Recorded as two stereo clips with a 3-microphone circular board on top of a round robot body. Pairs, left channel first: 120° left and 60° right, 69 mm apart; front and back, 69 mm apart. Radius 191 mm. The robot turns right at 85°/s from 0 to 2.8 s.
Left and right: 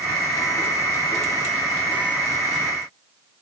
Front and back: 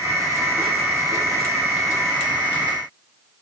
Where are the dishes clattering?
No dishes clattering in this recording.